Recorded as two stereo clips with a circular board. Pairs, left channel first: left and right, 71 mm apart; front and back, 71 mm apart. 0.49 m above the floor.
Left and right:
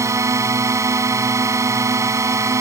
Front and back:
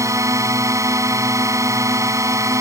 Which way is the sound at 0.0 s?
140° right.